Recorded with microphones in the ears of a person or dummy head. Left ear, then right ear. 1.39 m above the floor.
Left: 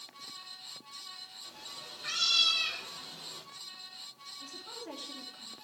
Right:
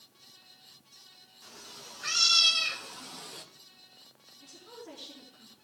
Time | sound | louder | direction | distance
1.4 | a cat meowing | left 3 dB | 60° right (ahead or behind) | 2.0 m
4.4 | a woman speaking | left 2 dB | 20° left (ahead or behind) | 3 m